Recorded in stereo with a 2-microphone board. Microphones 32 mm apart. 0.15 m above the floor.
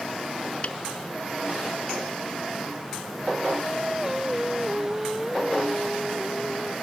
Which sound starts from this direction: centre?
Singing, at 3.6 s.